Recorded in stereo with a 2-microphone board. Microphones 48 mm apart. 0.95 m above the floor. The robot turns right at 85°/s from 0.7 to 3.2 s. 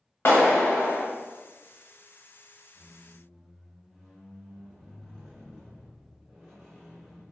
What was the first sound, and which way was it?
A clap, 55° left (ahead or behind).